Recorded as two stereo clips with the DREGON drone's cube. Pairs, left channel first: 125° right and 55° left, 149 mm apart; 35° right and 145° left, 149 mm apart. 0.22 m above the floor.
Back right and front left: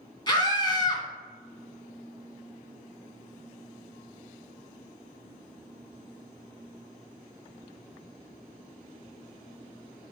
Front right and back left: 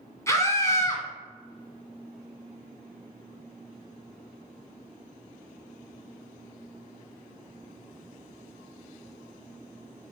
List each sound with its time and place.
0.3 s a scream: 90° right, 1.7 m